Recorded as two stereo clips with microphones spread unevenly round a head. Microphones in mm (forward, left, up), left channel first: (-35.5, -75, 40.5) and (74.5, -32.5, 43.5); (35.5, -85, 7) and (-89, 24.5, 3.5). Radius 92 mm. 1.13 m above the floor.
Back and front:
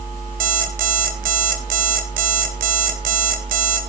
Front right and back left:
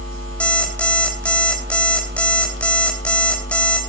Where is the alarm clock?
40° left, 2 m.